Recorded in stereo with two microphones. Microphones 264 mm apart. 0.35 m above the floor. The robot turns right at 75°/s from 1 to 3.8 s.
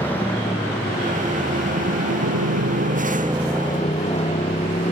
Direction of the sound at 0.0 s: 175° left.